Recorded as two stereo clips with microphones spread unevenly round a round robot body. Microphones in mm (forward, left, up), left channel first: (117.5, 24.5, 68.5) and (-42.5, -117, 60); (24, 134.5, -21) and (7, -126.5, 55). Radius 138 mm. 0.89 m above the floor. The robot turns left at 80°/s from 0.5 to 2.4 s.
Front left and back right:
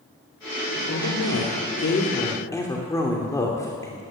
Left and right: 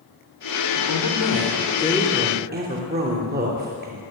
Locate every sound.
0.8 s a woman speaking: 100° left, 3 m; by 4.0 s 35° right, 3 m